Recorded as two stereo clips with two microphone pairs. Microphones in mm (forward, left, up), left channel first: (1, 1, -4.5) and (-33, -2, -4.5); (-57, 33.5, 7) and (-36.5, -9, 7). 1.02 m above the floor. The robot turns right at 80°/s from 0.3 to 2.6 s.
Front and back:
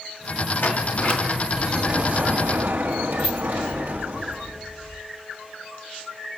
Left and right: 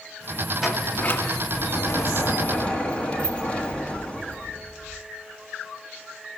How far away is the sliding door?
About 1.7 m.